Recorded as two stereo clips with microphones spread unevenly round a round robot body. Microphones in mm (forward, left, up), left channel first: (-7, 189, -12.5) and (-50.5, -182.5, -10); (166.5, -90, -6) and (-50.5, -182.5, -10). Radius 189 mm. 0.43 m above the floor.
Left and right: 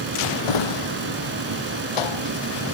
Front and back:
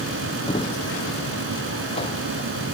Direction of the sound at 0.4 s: 100° left.